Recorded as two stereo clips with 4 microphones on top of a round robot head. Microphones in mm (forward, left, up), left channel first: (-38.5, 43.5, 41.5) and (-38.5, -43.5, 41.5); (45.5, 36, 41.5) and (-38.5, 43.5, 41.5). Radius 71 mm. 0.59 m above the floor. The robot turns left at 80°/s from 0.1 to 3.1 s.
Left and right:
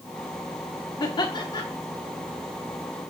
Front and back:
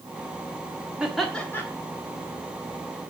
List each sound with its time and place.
1.0 s laughter: 100° left, 1.3 m; by 1.6 s 50° left, 1.3 m